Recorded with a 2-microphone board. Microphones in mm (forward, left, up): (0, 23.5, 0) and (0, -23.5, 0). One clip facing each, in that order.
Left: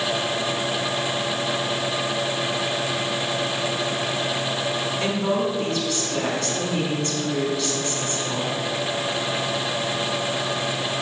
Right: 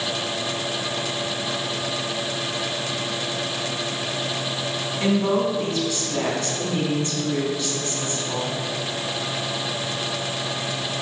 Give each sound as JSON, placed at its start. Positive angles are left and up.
{"t": 5.0, "sound": "a woman speaking", "side_deg": -20, "distance_m": 4.0}